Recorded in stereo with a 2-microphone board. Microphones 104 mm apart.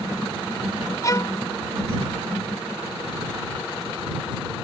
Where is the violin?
35° left (ahead or behind).